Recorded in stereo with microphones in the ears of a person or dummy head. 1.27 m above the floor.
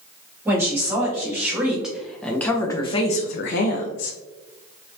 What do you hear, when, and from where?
0.5 s a woman speaking: 20° right (ahead or behind), 1.6 m; by 4.2 s 80° left, 0.6 m